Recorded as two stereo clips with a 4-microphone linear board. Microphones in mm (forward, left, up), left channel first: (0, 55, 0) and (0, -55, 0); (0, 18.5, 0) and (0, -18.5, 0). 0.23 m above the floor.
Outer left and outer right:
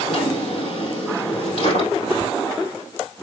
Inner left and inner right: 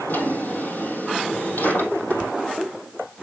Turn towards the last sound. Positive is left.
turn(degrees=70)  # may be behind; listen again after turning